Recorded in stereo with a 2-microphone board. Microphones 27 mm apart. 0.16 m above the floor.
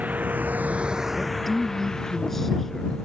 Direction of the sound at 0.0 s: 70° right (ahead or behind).